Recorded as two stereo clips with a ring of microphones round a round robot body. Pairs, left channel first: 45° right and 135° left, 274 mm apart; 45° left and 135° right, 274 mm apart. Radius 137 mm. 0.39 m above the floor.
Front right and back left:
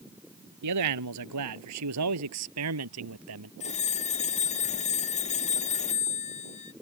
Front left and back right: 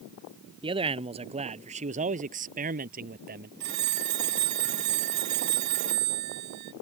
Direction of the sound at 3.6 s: 110° right.